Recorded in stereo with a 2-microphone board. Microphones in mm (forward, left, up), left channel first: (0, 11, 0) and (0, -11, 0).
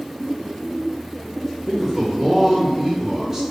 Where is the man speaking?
20° right (ahead or behind), 0.8 m.